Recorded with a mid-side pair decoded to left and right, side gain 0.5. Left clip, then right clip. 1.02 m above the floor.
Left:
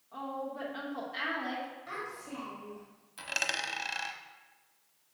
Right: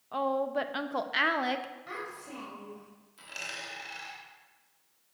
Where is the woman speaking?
70° right, 0.8 m.